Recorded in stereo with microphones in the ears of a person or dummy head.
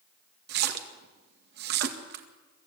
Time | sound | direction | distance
0.5 | a splash | 55° right (ahead or behind) | 1.8 m